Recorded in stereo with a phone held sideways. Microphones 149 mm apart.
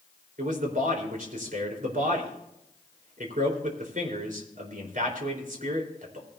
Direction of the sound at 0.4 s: 65° right (ahead or behind).